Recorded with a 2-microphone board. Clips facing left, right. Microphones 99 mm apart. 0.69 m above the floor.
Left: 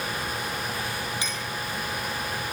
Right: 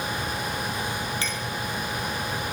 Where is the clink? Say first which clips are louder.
Right 2 dB; 15° left (ahead or behind), 7 m.